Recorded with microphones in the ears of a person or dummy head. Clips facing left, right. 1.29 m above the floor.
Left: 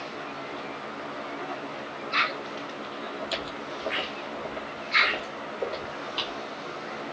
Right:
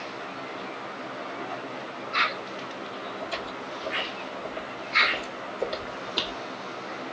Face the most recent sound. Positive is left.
turn(degrees=-30)  # may be behind; listen again after turning